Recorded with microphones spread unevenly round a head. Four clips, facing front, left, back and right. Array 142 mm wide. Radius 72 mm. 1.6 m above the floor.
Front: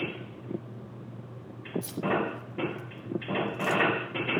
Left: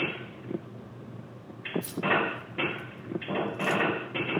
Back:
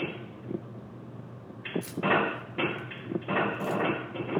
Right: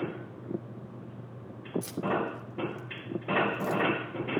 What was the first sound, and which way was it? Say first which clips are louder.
Keys jangling: left 3 dB, back 3 dB; 80° right.